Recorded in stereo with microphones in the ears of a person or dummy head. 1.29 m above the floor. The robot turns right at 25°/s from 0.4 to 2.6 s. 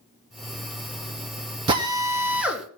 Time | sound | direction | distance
1.7 | a drill | 25° right (ahead or behind) | 2.5 m